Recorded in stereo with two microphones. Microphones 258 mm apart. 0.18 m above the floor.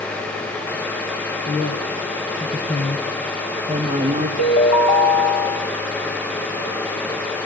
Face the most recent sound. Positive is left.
turn(degrees=80)